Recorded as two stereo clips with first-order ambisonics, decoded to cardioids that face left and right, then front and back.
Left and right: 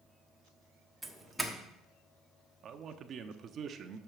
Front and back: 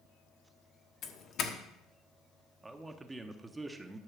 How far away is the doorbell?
About 1.3 m.